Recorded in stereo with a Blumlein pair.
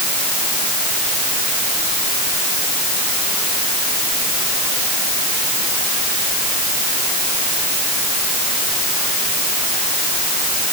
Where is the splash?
I don't hear a splash.